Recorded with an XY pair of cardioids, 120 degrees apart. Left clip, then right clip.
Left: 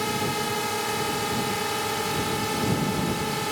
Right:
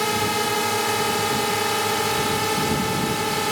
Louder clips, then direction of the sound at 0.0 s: Right 5 dB; 30° right.